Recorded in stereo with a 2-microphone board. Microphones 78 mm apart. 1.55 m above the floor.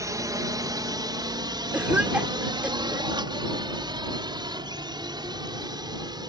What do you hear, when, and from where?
0.0 s a drone: 45° right (ahead or behind); by 6.3 s 65° right (ahead or behind)
1.7 s a cough: 20° right (ahead or behind)